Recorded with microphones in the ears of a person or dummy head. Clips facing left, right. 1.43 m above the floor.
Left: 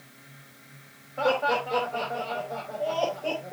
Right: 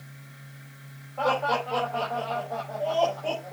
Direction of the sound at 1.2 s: 20° left (ahead or behind).